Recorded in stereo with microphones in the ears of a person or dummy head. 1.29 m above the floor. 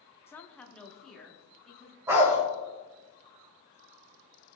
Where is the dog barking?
15° right (ahead or behind), 1.6 m.